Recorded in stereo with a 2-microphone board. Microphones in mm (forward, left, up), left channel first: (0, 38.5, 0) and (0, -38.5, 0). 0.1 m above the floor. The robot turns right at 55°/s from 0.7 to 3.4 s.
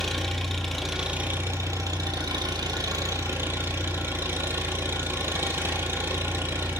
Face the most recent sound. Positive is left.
turn(degrees=-35)